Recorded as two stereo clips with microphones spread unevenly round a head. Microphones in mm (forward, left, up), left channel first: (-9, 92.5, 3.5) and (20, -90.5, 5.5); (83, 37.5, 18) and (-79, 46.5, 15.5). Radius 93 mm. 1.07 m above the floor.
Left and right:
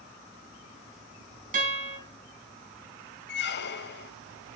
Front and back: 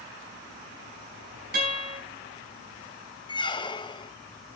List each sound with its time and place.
1.5 s a guitar: 135° right, 4.5 m
3.3 s a squeak: 60° left, 0.8 m